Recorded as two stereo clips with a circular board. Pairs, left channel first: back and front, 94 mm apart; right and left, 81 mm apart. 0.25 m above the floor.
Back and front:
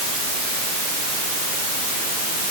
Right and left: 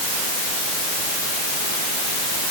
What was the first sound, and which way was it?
Only background noise.